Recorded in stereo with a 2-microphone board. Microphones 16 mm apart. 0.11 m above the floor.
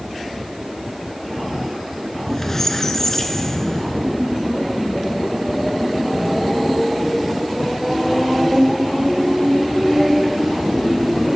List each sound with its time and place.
2.1 s a squeak: 25° left (ahead or behind), 0.6 m